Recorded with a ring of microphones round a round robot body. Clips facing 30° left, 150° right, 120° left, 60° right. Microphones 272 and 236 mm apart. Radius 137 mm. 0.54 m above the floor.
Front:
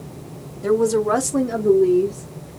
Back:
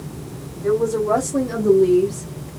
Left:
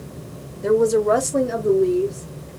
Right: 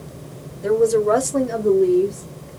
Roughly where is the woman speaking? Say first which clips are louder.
Front 1 dB, even; ahead left.